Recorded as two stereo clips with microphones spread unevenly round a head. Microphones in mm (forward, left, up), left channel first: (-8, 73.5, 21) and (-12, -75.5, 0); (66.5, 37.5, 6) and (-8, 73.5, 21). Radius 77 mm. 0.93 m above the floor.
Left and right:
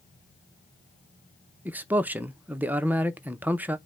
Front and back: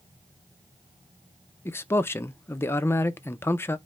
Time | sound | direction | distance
1.6 | a man speaking | 30° right | 0.5 m